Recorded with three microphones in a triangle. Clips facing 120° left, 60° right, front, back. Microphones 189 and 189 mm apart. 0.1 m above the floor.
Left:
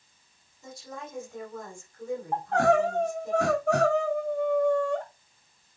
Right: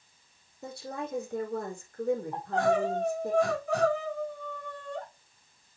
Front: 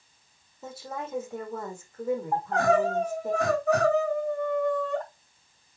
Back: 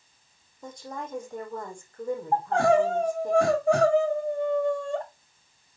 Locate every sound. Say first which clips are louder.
0.6 s a woman speaking: right 4 dB, front 1 dB; 85° right, 4.5 m
2.3 s crying: left 8 dB, back 3 dB; 120° left, 3.5 m